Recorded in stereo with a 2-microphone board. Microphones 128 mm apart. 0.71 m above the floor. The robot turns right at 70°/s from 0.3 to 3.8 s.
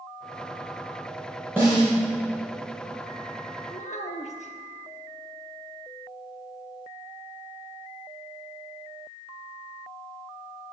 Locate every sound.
1.6 s a snare drum: 15° right (ahead or behind), 4.5 m; by 1.9 s 40° right (ahead or behind), 4.5 m
3.7 s a child speaking: 60° left (ahead or behind), 1.1 m; by 4.5 s 65° left (ahead or behind), 1.1 m